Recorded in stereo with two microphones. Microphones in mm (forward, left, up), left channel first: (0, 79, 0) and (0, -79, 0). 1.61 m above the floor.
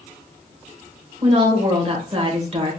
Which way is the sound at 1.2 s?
40° right (ahead or behind).